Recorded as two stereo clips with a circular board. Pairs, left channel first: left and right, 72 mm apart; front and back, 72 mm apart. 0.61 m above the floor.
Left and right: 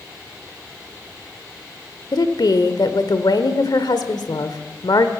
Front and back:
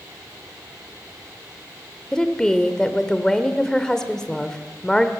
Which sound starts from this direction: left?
A woman speaking, at 2.1 s.